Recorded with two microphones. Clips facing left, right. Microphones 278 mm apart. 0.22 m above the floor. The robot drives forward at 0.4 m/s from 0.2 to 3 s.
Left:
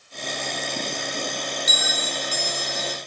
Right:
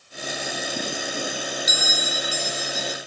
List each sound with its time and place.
1.7 s a bell: 60° left (ahead or behind), 1.0 m; by 3.0 s 75° left (ahead or behind), 0.9 m